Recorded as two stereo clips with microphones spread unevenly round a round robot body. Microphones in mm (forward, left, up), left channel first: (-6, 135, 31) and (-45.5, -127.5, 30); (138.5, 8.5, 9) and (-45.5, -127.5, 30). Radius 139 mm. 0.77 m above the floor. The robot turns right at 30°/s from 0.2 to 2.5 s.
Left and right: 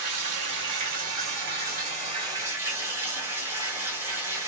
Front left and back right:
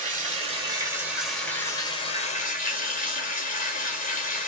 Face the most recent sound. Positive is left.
turn(degrees=-15)